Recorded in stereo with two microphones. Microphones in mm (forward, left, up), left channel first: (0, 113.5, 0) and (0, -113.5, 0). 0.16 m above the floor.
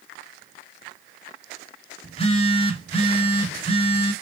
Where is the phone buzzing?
25° left (ahead or behind), 1.1 m.